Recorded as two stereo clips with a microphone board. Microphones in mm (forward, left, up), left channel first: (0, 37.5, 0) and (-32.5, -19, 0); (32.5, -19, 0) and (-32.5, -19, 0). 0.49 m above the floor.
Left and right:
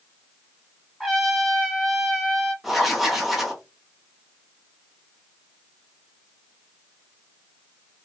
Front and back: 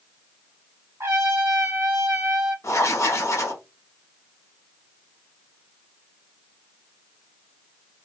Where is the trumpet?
155° left, 1.1 m.